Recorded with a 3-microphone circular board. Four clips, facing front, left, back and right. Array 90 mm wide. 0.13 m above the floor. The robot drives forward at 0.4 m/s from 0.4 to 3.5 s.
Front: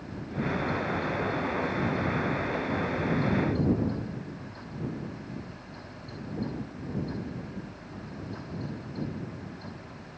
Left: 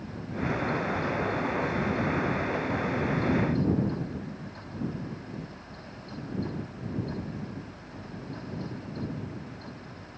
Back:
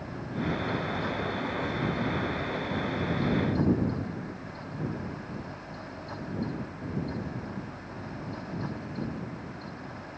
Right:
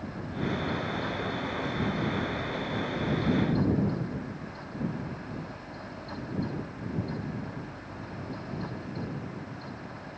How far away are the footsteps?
I don't hear footsteps.